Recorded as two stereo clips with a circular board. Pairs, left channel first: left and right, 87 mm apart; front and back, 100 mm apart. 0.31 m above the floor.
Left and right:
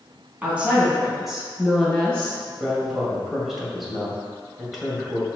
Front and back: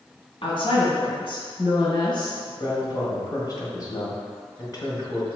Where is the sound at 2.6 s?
5° right, 1.8 m.